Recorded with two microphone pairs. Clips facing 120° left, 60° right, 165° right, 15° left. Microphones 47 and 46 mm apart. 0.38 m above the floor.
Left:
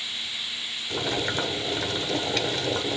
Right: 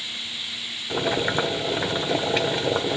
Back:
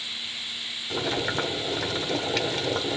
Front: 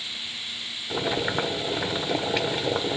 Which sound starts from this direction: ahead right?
Boiling, at 0.9 s.